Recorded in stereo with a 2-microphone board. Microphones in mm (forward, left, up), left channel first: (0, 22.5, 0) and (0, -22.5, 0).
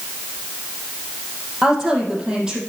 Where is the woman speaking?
15° right (ahead or behind), 3.5 m.